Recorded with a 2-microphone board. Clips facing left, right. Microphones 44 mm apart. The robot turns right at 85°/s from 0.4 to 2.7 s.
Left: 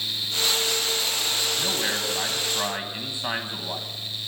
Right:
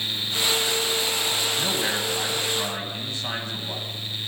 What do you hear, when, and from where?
1.6 s a man speaking: 10° right (ahead or behind), 1.5 m; by 3.9 s 25° left (ahead or behind), 1.5 m